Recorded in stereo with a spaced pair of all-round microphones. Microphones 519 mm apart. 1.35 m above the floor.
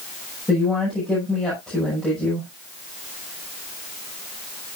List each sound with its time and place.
0.5 s a woman speaking: centre (ahead or behind), 6.5 m